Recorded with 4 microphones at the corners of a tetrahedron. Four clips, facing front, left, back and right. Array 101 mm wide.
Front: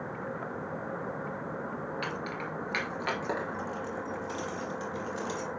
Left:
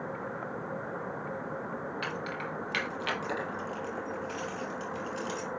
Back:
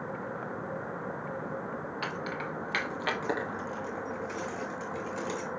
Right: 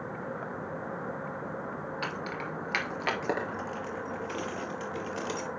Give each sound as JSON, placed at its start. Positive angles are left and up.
{"t": 2.0, "sound": "keys jangling", "azimuth_deg": -135, "distance_m": 2.0}